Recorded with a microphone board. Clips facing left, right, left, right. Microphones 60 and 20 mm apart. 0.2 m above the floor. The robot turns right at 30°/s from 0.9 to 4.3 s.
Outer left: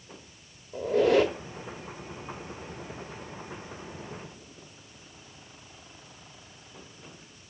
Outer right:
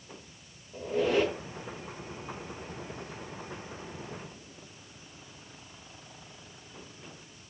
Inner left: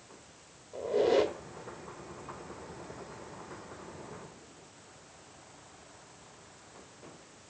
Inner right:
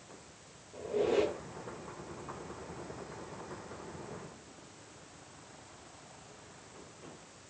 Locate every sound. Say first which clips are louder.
0.7 s a squeak: outer left 5 dB, inner left 4 dB; 80° left, 0.6 m; by 1.3 s 75° left (ahead or behind), 0.6 m